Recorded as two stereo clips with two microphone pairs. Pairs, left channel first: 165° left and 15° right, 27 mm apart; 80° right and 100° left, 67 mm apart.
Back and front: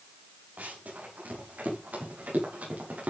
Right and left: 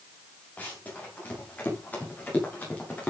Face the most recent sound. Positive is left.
turn(degrees=-10)